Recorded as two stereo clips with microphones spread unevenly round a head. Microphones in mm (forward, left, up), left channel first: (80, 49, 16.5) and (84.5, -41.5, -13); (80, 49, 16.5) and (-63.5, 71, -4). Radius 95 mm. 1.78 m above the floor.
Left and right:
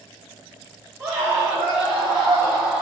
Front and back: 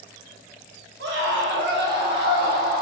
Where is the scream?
175° right, 2.5 m; by 2.8 s straight behind, 3 m.